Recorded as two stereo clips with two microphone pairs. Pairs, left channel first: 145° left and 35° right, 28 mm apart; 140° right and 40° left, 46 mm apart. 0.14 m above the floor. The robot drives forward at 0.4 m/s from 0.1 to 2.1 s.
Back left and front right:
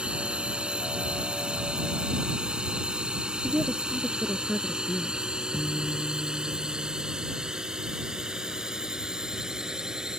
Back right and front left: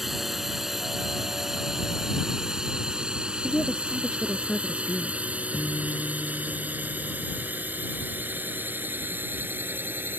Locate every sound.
0.0 s a drone: 45° right; by 10.2 s 25° left
3.4 s a woman speaking: 60° right
5.5 s a guitar: 145° left